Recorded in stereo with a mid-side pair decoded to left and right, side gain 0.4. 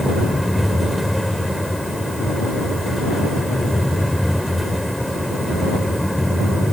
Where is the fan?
Straight ahead.